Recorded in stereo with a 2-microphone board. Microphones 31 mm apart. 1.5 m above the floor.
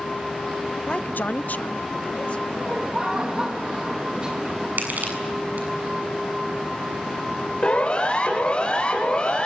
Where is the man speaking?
30° left (ahead or behind), 0.5 m; by 2.4 s 45° left (ahead or behind), 2 m.